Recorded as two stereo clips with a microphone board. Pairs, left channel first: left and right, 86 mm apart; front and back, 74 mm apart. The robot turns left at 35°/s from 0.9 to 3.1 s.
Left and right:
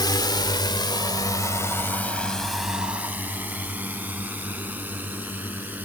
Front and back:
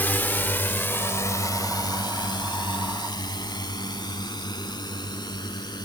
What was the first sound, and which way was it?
A drone, 65° left.